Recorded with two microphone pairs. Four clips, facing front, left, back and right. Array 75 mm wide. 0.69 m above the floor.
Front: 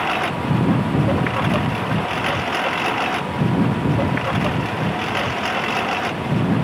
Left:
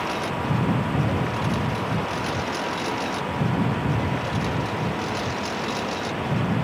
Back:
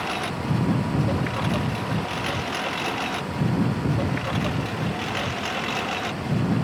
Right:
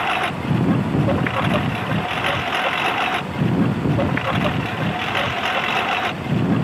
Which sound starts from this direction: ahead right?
A lawn mower, at 0.0 s.